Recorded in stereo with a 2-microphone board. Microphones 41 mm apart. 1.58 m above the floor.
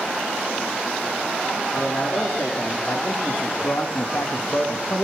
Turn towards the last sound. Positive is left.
turn(degrees=85)